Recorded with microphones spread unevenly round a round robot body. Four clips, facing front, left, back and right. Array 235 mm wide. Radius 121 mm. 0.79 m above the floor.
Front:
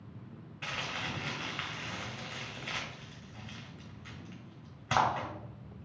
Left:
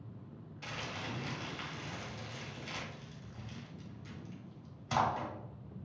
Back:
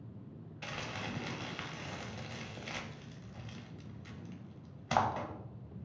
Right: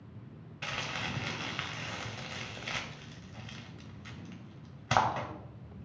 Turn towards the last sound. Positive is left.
turn(degrees=-60)